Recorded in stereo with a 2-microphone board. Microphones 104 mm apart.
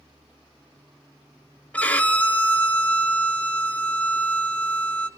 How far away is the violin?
About 0.9 m.